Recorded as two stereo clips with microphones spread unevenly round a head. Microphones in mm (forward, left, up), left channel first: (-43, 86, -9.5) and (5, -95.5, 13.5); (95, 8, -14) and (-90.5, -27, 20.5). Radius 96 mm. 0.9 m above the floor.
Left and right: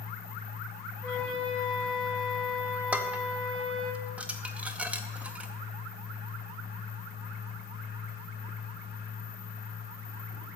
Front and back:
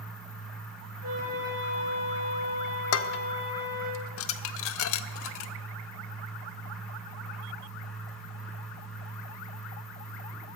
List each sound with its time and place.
0.0 s a fan: 90° left, 1.7 m
1.0 s a flute: 175° right, 3 m
2.9 s dishes clattering: 10° left, 0.6 m